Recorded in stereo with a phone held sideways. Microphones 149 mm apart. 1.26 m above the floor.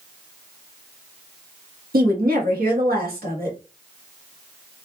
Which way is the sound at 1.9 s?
85° right.